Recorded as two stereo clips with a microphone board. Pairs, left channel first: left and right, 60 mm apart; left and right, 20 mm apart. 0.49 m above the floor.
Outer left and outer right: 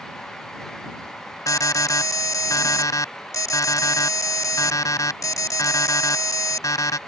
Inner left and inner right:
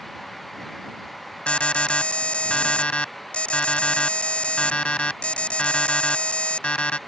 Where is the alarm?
80° left.